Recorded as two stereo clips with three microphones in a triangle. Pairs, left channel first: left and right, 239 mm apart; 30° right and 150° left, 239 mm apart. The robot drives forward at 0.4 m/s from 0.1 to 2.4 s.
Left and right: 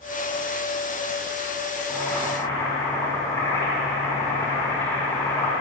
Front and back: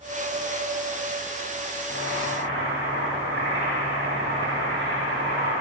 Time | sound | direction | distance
1.9 | boiling | 165° left | 3.5 m